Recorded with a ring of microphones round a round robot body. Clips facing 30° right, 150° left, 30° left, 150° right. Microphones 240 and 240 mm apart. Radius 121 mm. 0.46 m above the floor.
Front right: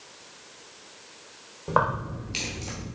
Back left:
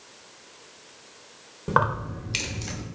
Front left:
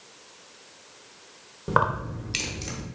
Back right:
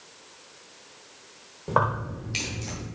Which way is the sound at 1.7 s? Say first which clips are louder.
Even, even; 90° left.